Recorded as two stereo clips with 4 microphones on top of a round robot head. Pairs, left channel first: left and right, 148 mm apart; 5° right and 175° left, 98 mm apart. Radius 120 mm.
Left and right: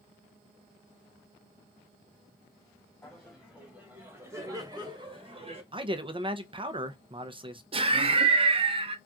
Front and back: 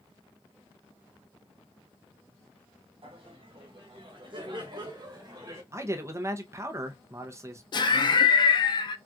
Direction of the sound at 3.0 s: 175° left.